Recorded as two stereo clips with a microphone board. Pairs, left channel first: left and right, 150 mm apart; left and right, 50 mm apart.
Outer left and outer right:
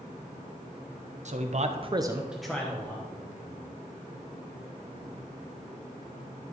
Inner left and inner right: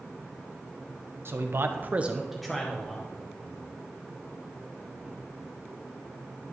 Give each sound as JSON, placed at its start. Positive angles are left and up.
{"t": 1.2, "sound": "a man speaking", "side_deg": -50, "distance_m": 1.0}